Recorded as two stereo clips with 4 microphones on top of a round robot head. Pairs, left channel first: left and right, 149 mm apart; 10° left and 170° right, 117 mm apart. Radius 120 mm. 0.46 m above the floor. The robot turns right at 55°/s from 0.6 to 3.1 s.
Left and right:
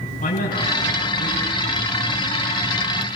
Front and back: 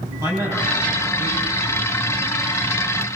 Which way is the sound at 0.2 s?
130° left.